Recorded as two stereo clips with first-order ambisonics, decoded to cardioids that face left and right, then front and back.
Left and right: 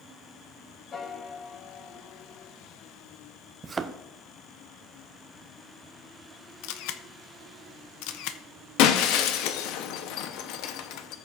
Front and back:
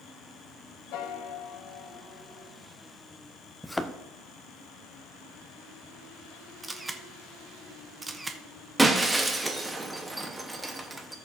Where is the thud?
80° right, 0.5 m.